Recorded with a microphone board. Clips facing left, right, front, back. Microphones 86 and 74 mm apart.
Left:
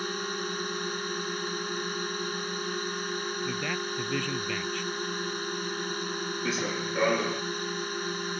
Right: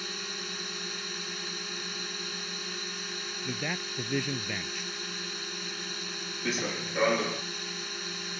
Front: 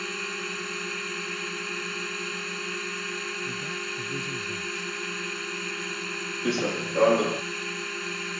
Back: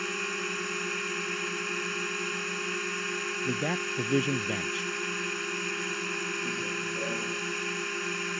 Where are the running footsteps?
Straight ahead.